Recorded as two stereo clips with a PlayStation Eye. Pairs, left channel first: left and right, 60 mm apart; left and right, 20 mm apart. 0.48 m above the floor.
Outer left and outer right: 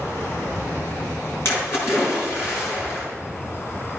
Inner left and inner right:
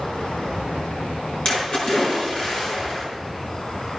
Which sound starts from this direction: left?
A splash, at 1.4 s.